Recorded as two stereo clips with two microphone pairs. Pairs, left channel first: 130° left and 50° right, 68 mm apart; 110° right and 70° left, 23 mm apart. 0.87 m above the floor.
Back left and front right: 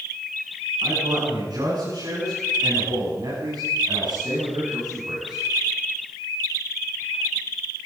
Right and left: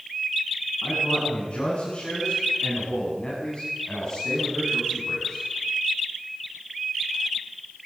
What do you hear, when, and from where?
0.8 s a man speaking: 70° right, 9 m; by 5.4 s 35° right, 6.5 m